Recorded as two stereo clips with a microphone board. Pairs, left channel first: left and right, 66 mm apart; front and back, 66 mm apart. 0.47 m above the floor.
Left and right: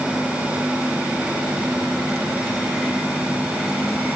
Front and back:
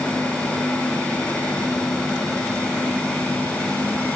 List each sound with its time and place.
Only background noise.